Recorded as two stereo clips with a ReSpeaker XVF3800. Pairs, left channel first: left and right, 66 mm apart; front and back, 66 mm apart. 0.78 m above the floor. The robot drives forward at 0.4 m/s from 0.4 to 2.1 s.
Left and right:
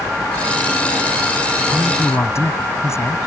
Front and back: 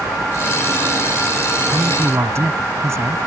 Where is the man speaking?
135° left.